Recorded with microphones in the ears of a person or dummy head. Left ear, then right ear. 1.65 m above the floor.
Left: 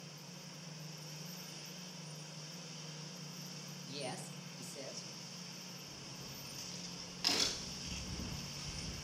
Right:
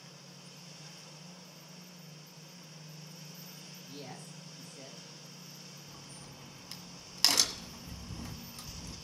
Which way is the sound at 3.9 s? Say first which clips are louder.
Left 5 dB; 55° left (ahead or behind).